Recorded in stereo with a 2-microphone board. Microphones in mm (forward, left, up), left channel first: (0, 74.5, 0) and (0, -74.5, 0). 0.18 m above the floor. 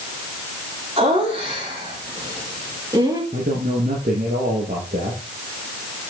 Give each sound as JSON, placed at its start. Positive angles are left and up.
{"t": 1.0, "sound": "laughter", "side_deg": -40, "distance_m": 7.0}
{"t": 3.3, "sound": "a man speaking", "side_deg": -75, "distance_m": 7.0}